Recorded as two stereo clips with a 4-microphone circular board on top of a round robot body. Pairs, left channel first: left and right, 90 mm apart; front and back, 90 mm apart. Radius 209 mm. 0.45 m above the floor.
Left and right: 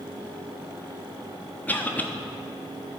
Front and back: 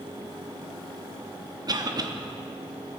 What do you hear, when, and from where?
1.7 s a cough: 155° left, 1.6 m